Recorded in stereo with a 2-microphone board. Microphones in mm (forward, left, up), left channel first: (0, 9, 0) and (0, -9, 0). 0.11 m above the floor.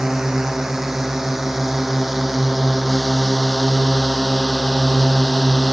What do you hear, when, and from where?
0.0 s a drone: 30° right (ahead or behind); by 5.7 s 30° left (ahead or behind)